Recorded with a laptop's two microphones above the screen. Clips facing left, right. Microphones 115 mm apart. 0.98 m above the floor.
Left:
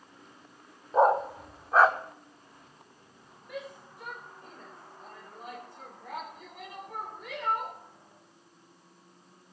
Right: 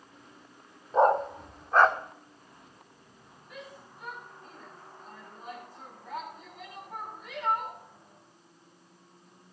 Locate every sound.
0.9 s a dog barking: 5° left (ahead or behind), 0.8 m
3.5 s a shout: 70° left (ahead or behind), 4.5 m